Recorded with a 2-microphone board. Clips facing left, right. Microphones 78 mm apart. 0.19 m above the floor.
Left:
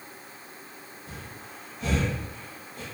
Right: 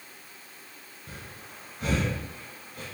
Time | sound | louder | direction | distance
1.1 | breathing | left 1 dB | 50° right (ahead or behind) | 1.5 m